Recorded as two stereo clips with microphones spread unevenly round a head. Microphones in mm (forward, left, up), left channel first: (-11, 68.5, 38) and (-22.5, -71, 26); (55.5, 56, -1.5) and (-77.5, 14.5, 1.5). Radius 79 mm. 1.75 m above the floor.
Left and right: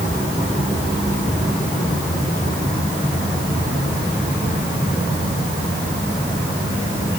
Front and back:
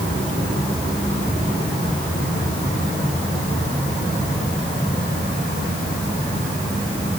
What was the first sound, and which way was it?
Only background noise.